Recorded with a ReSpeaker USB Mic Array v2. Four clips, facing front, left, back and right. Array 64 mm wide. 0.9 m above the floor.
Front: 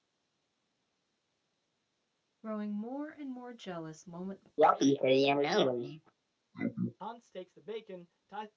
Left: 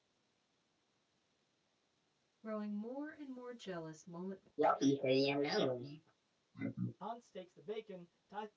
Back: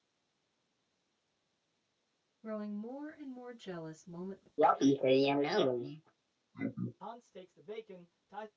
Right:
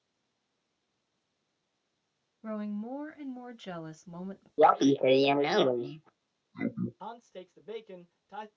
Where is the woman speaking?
55° right, 1.0 m.